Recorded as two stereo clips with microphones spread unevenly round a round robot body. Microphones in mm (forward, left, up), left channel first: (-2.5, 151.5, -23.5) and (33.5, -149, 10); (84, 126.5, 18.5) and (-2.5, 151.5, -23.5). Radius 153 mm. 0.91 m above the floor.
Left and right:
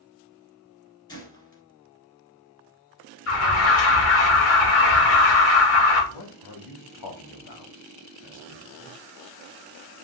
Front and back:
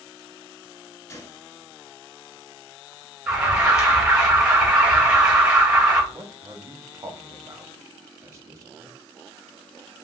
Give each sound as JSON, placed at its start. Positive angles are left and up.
{"t": 1.1, "sound": "a gunshot", "azimuth_deg": 20, "distance_m": 1.7}
{"t": 3.3, "sound": "an alarm", "azimuth_deg": 105, "distance_m": 2.0}
{"t": 6.1, "sound": "a man speaking", "azimuth_deg": 115, "distance_m": 1.5}